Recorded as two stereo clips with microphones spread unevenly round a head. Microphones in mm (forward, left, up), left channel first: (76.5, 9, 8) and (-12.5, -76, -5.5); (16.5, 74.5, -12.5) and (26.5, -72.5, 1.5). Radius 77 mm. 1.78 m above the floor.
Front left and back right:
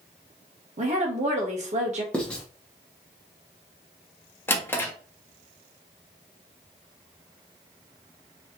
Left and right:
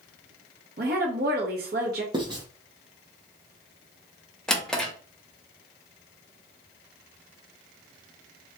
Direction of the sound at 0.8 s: 105° right.